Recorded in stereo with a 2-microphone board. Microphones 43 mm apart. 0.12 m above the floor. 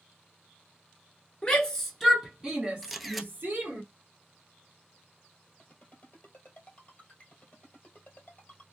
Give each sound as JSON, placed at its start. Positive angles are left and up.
{"t": 1.4, "sound": "a shout", "side_deg": 20, "distance_m": 1.2}
{"t": 2.8, "sound": "a camera shutter", "side_deg": 0, "distance_m": 0.5}
{"t": 5.6, "sound": "a ringtone", "side_deg": 30, "distance_m": 1.6}